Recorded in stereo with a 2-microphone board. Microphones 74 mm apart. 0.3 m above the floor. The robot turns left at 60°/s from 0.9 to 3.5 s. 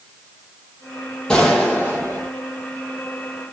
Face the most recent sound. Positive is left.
turn(degrees=-120)